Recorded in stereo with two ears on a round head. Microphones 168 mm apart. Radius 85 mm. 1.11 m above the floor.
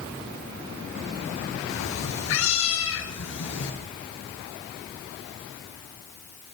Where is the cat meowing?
75° left (ahead or behind), 3.5 m; by 3.7 s 60° left (ahead or behind), 3 m.